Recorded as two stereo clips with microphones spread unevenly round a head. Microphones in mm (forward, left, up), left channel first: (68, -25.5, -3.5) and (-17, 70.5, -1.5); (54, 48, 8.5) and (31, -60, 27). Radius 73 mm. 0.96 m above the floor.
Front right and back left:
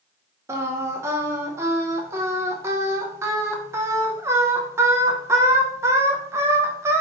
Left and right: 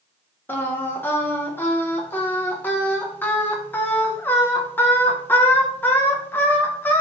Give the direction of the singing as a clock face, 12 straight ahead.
9 o'clock.